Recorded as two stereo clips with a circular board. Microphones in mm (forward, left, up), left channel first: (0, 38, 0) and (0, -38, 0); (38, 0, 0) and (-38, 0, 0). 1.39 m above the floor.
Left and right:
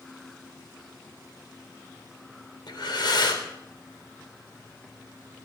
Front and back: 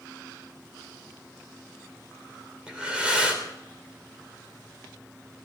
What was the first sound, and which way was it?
Breathing, 105° left.